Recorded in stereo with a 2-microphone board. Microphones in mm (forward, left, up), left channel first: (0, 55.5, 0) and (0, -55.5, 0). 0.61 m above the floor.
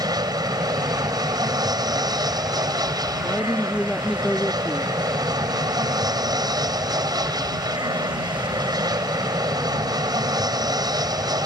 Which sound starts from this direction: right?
An aircraft, at 0.0 s.